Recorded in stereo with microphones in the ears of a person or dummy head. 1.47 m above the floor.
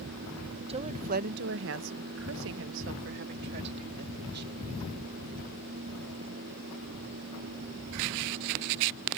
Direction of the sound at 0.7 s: 25° right (ahead or behind).